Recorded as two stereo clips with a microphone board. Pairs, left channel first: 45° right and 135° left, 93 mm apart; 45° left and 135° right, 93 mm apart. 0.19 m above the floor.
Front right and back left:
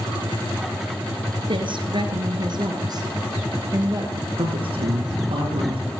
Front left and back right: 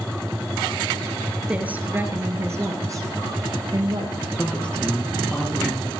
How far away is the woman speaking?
About 2.5 m.